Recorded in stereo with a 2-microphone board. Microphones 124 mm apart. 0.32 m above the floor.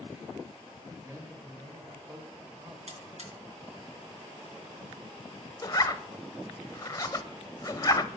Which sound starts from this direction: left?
A zipper, at 5.6 s.